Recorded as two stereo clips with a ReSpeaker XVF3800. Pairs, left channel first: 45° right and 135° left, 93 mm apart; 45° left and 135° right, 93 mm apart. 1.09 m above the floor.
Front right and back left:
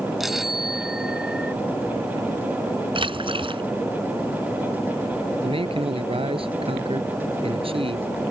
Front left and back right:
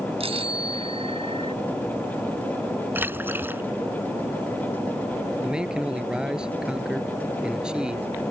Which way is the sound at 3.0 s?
155° left.